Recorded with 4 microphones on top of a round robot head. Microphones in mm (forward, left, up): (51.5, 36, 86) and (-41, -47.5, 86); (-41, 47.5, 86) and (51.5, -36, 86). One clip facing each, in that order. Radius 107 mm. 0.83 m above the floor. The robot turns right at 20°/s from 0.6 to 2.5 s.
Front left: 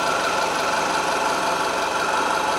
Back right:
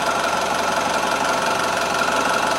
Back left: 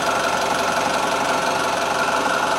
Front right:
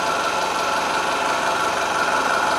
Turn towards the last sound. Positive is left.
turn(degrees=-140)